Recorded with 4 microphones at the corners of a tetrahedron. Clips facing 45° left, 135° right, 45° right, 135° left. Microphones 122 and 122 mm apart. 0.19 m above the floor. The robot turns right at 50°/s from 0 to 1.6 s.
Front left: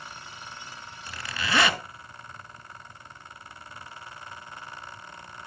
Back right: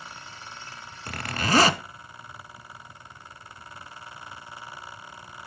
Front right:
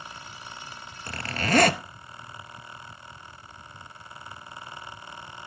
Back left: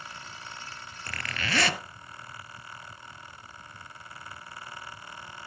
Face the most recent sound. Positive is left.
turn(degrees=-85)